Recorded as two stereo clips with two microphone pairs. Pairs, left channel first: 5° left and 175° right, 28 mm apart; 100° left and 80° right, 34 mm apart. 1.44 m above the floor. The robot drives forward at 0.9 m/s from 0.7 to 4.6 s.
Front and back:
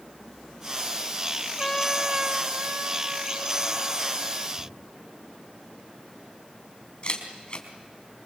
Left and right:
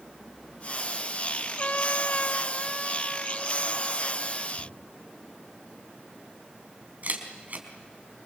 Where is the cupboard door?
130° right, 8 m.